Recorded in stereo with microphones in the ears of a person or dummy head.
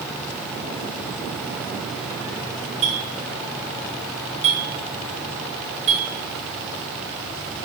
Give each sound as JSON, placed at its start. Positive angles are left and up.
{"t": 2.8, "sound": "a clink", "side_deg": -35, "distance_m": 1.4}